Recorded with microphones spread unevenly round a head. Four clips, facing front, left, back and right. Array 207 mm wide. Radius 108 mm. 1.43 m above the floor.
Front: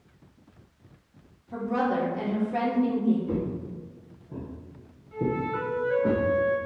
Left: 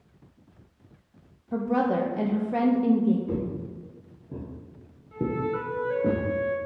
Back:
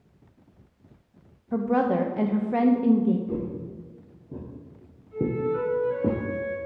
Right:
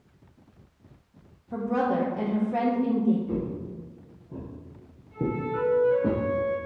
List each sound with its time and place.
1.5 s a woman speaking: 150° left, 0.6 m
3.3 s footsteps: 60° left, 1.9 m; by 6.1 s 175° left, 2.5 m
5.1 s a flute: 75° left, 1.5 m